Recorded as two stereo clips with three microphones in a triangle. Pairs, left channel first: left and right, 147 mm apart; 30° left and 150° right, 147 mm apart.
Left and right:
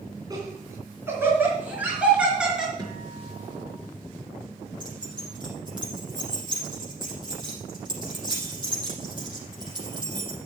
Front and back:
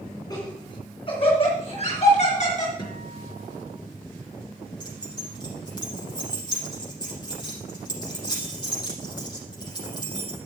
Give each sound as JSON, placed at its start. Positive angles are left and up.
{"t": 0.3, "sound": "laughter", "azimuth_deg": -30, "distance_m": 3.0}
{"t": 2.8, "sound": "a guitar", "azimuth_deg": -30, "distance_m": 4.0}
{"t": 4.8, "sound": "keys jangling", "azimuth_deg": -30, "distance_m": 5.5}